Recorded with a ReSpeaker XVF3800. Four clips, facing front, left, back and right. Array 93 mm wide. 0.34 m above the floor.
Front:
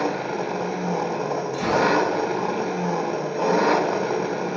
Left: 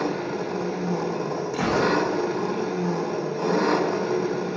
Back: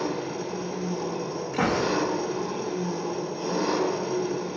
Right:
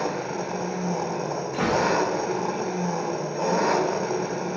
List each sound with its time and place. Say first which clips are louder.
0.0 s an engine running: left 1 dB, front 5 dB; 15° right, 1.2 m
1.5 s a gunshot: even, front 3 dB; 140° right, 7 m